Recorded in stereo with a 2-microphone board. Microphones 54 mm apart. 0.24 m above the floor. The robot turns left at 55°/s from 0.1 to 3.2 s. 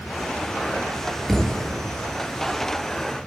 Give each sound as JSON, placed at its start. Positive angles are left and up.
{"t": 1.3, "sound": "a thud", "side_deg": 5, "distance_m": 1.9}